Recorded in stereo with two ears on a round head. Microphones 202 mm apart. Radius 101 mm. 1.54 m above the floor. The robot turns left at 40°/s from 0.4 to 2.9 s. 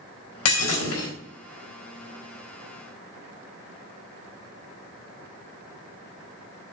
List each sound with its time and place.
0.5 s breaking glass: 75° left (ahead or behind), 4 m; by 1.1 s 70° left (ahead or behind), 4 m